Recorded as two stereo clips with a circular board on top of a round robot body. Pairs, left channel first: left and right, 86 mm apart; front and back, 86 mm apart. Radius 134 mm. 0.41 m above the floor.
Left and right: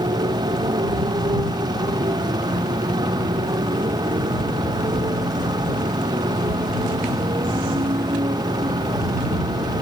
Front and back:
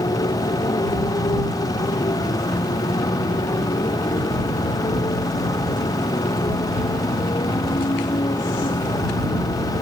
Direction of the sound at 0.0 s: 50° right.